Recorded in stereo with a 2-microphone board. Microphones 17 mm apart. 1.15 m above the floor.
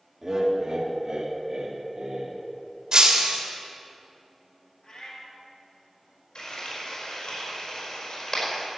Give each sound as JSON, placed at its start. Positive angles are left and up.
{"t": 0.2, "sound": "laughter", "side_deg": -25, "distance_m": 2.0}
{"t": 2.9, "sound": "breaking glass", "side_deg": -55, "distance_m": 1.7}
{"t": 4.8, "sound": "a cat meowing", "side_deg": 50, "distance_m": 2.5}
{"t": 6.3, "sound": "frying", "side_deg": 70, "distance_m": 4.5}